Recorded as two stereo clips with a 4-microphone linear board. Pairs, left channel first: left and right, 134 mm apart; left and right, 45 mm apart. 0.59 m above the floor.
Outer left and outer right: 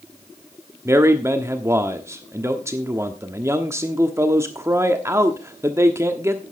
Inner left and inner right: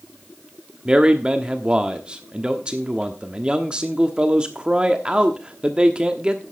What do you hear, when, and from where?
0.8 s a man speaking: 20° right (ahead or behind), 1.1 m